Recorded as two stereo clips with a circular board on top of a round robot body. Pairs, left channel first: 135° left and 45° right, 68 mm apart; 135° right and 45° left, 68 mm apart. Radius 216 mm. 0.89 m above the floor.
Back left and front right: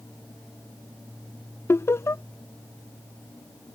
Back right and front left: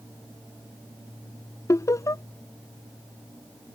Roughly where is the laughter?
Behind.